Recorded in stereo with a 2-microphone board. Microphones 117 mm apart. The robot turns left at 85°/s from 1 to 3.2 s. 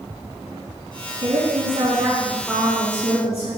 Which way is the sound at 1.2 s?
75° right.